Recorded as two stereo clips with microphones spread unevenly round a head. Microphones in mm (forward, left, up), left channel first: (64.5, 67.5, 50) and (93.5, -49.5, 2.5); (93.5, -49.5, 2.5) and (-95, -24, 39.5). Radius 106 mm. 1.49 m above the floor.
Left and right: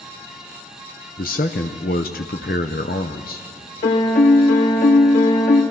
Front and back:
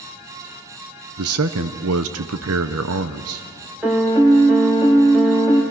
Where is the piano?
90° left, 2 m.